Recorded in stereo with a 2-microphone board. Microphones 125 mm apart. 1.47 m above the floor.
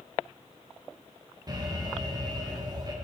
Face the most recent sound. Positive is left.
turn(degrees=-30)  # may be behind; listen again after turning